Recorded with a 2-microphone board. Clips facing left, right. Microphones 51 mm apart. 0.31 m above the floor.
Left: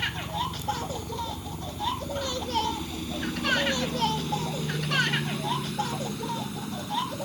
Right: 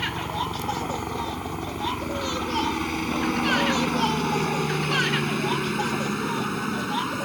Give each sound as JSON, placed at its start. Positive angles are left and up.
{"t": 0.0, "sound": "a helicopter", "side_deg": -60}